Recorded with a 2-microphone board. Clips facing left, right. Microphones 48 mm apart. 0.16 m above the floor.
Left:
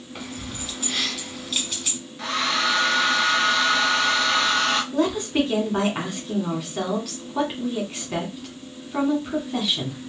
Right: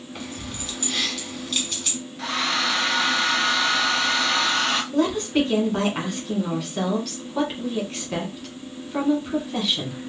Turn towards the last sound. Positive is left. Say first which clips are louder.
# right 1 dB
turn(degrees=5)  # may be behind; listen again after turning